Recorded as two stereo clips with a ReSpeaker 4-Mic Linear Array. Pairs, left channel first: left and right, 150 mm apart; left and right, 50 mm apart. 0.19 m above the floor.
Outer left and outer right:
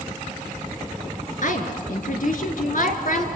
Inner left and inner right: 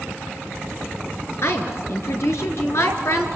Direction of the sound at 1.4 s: 60° left (ahead or behind).